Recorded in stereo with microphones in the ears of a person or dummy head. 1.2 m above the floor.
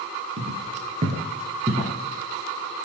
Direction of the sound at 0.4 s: 35° right (ahead or behind).